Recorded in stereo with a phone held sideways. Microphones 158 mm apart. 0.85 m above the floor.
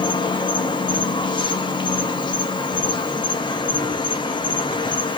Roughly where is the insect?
Left.